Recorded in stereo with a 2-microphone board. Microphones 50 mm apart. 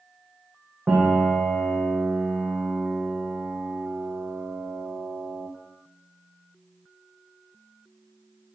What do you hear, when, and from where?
0.9 s a piano: 30° right (ahead or behind), 3 m